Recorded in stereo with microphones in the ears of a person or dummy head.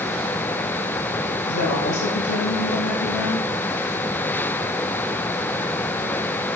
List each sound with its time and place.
1.5 s a woman speaking: 80° left, 5.5 m; by 3.5 s 70° left (ahead or behind), 6 m